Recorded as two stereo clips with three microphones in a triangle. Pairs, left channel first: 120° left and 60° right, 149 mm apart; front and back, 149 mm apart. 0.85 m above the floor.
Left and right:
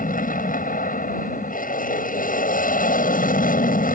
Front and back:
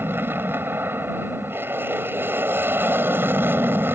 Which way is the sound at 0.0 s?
105° left.